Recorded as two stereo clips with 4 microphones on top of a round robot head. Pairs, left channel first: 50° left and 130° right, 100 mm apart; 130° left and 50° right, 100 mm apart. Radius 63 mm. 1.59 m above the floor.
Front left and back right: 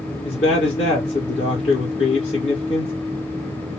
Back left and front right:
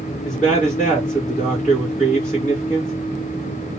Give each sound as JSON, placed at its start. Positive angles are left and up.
{"t": 0.2, "sound": "a man speaking", "azimuth_deg": 45, "distance_m": 2.5}